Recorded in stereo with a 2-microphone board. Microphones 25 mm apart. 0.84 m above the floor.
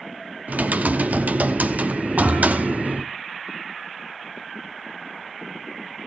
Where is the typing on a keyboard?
75° right (ahead or behind), 0.6 m.